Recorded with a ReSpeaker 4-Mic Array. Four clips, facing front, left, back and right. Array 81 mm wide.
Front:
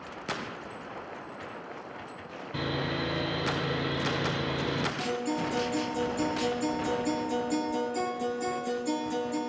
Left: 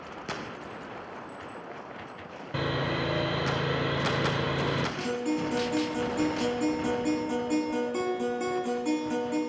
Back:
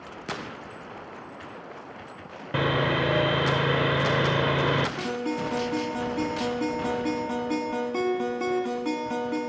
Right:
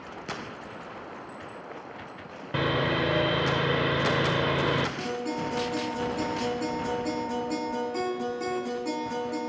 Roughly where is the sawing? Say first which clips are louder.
Right 4 dB, back 8 dB; behind.